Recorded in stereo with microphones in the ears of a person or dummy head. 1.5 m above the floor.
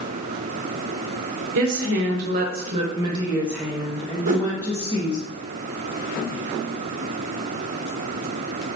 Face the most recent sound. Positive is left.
turn(degrees=-40)  # may be behind; listen again after turning